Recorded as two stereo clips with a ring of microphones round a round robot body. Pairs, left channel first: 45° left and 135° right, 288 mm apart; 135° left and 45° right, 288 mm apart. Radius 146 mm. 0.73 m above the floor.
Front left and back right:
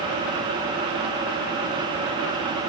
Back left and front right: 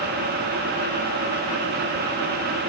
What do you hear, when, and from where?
Only background noise.